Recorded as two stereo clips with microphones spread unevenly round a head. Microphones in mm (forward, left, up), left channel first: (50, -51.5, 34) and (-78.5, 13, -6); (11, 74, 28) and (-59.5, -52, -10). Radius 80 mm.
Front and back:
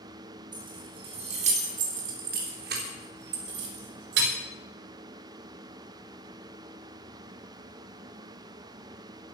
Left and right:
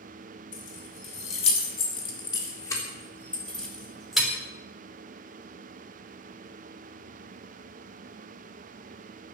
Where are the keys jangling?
85° left, 4 m; by 4.3 s 150° left, 4 m.